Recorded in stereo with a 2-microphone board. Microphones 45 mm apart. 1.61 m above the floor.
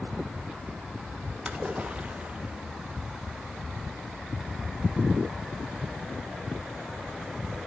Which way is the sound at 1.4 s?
20° right (ahead or behind).